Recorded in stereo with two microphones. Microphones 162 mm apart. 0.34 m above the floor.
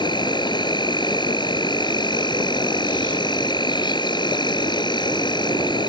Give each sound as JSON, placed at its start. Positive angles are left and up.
{"t": 0.0, "sound": "an insect", "side_deg": 25}